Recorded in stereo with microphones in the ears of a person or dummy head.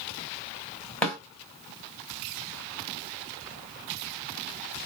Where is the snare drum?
5° left (ahead or behind), 1.9 m.